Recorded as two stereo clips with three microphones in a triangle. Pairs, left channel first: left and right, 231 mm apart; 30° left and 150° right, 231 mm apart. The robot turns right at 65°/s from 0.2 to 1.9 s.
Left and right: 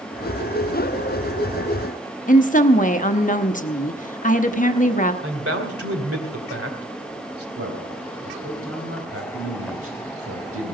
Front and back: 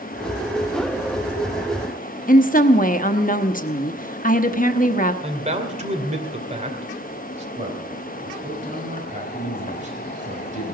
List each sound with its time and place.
2.3 s a woman speaking: 60° left, 0.9 m
5.2 s a man speaking: 90° right, 2.5 m
7.5 s a man speaking: 95° right, 4.5 m